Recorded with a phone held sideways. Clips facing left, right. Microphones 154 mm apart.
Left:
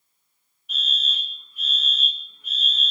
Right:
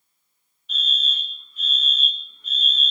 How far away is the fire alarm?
About 5 m.